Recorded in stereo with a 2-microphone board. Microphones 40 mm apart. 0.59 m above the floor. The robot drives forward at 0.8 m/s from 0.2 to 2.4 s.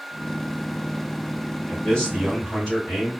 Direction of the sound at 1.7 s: 25° left (ahead or behind).